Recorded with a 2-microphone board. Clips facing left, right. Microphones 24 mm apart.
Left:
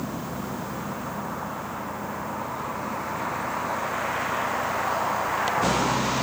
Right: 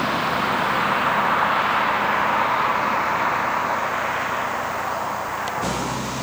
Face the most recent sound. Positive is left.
turn(degrees=15)  # may be behind; listen again after turning